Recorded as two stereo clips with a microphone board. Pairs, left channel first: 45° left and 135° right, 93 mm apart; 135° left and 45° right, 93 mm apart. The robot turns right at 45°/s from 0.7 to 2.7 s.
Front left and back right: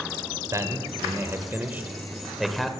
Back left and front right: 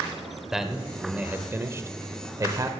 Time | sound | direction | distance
0.5 | a man speaking | 125° right | 1.0 m